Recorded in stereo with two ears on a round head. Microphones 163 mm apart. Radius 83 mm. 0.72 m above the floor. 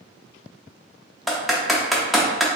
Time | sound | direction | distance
1.3 | typing on a keyboard | centre (ahead or behind) | 0.5 m